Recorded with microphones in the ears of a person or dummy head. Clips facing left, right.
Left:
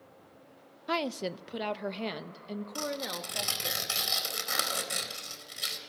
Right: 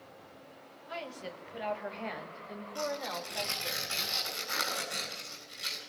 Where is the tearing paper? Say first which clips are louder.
Right 3 dB; 70° left (ahead or behind), 4 m.